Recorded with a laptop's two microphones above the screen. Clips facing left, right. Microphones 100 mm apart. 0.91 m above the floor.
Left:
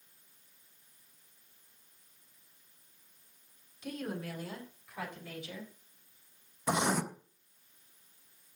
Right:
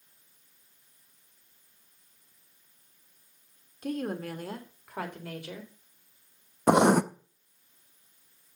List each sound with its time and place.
3.8 s a woman speaking: 55° right (ahead or behind), 2.5 m; by 5.7 s 70° right (ahead or behind), 4 m
6.7 s writing: 60° right (ahead or behind), 0.5 m